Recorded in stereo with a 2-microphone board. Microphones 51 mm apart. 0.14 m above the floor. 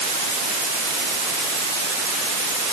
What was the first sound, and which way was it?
Only background noise.